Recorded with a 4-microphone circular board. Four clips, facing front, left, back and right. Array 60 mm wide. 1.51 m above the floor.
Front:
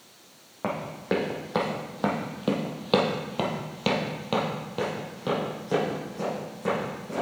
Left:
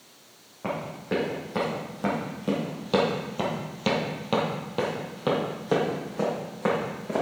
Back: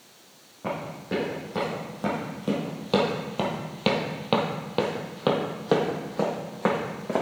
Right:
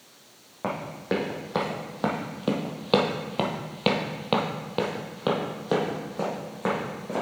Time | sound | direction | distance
0.6 | running footsteps | 35° right | 3 m